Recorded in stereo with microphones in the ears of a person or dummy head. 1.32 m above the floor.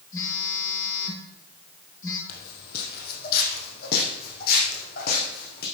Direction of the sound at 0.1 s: 20° left (ahead or behind).